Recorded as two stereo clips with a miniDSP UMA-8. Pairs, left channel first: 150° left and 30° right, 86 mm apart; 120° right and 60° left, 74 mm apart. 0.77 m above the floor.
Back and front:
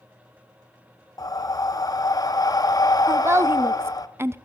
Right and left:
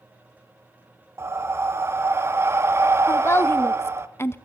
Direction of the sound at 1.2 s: 110° left.